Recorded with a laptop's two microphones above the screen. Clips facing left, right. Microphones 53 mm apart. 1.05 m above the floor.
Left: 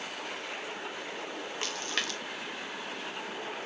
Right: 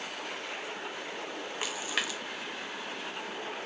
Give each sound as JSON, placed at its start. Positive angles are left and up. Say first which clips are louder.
{"t": 1.6, "sound": "a splash", "louder": "right 1 dB", "side_deg": -10, "distance_m": 1.1}